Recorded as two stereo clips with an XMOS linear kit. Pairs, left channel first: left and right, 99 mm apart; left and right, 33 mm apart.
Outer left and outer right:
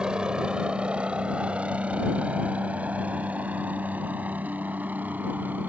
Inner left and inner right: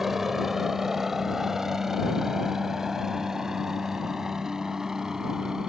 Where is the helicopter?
10° right (ahead or behind); by 5.7 s 20° right (ahead or behind).